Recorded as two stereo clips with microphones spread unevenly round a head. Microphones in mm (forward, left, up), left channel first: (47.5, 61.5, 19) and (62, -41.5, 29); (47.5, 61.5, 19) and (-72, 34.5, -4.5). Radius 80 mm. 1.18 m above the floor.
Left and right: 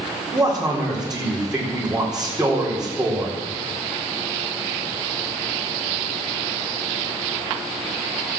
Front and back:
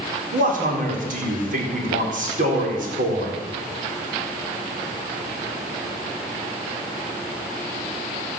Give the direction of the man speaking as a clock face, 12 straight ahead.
6 o'clock.